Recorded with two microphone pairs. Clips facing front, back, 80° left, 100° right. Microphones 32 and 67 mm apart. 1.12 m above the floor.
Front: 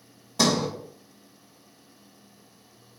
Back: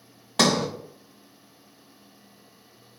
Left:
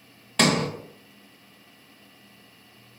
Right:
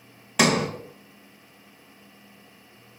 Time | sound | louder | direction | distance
0.4 | a sliding door | back 2 dB, right 1 dB | 175° left | 0.7 m